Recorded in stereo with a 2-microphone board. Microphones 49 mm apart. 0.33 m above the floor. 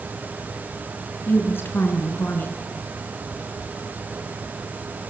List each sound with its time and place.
1.3 s a woman speaking: 50° left (ahead or behind), 4.5 m